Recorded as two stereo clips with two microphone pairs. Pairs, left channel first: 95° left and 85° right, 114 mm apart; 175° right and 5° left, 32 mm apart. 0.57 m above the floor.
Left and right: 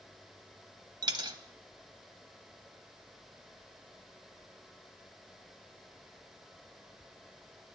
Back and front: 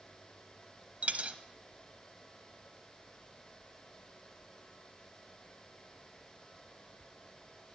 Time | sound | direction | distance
1.0 | a dropped coin | 35° right | 0.7 m